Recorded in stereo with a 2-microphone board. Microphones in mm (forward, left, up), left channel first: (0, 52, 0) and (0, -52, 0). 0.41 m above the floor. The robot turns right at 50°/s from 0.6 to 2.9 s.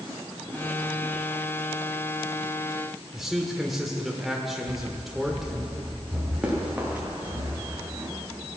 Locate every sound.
3.1 s a man speaking: centre (ahead or behind), 1.3 m
4.7 s running footsteps: 35° left (ahead or behind), 3 m; by 7.4 s 15° right (ahead or behind), 5.5 m
6.4 s running footsteps: 10° right (ahead or behind), 4 m; by 8.1 s 15° right (ahead or behind), 5.5 m